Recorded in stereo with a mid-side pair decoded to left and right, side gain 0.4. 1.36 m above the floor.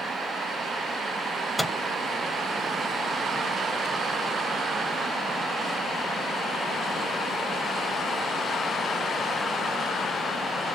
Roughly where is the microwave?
Ahead.